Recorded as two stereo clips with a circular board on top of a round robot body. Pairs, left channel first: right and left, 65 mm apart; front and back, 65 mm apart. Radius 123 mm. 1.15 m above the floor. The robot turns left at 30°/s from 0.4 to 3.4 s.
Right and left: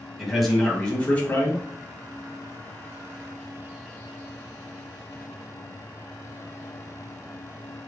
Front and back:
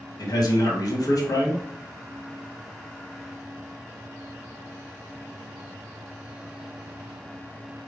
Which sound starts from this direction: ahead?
A man speaking, at 0.2 s.